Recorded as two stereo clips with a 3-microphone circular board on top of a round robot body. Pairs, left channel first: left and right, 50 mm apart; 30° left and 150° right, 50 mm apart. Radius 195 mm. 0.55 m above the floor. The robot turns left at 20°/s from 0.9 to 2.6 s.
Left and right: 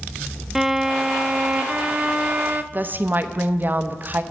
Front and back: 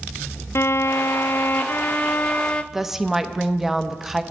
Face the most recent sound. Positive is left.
turn(degrees=-70)